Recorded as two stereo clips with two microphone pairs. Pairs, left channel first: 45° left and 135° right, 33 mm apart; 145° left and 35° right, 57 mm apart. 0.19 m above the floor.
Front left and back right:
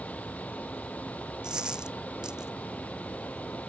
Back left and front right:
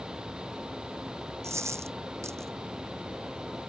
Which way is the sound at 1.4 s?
70° right.